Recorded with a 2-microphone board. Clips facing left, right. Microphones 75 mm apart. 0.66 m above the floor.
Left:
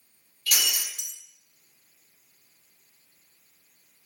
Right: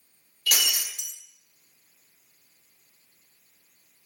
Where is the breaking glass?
65° right (ahead or behind), 0.8 m.